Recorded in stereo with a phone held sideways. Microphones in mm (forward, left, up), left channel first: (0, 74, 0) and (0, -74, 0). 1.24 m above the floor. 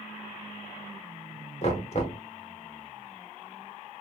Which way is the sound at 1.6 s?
50° left (ahead or behind).